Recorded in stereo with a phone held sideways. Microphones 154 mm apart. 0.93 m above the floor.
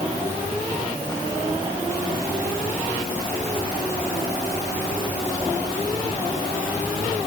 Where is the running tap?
No running tap in this recording.